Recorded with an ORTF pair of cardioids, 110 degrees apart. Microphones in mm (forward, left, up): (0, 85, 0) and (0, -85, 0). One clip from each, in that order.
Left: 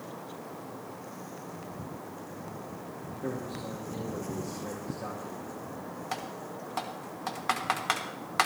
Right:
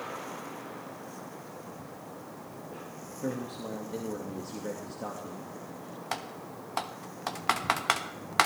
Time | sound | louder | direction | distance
3.2 | a man speaking | right 1 dB | 30° right | 2 m
6.1 | typing on a keyboard | right 1 dB | 25° right | 1.3 m